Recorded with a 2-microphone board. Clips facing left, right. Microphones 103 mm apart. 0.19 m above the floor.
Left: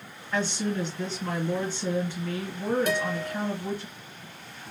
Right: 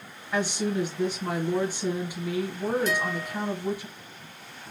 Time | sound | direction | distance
0.3 | a woman speaking | 15° right (ahead or behind) | 1.3 m
2.9 | a guitar | 55° left (ahead or behind) | 1.2 m